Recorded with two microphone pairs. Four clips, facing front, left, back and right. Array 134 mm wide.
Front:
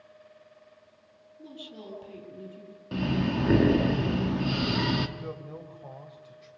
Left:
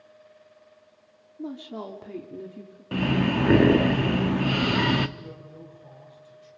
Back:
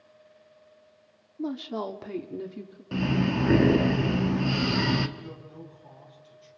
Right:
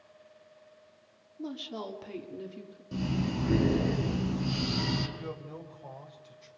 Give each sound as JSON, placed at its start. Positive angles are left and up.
{"t": 1.4, "sound": "a woman speaking", "azimuth_deg": 180, "distance_m": 2.0}
{"t": 2.9, "sound": "breathing", "azimuth_deg": 90, "distance_m": 1.2}
{"t": 5.2, "sound": "a man speaking", "azimuth_deg": -40, "distance_m": 3.5}